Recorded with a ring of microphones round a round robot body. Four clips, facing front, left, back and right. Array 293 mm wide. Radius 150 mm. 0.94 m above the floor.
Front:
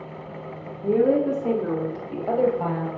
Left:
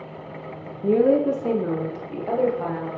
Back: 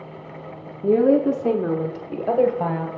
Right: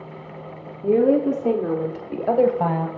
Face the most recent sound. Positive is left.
turn(degrees=-120)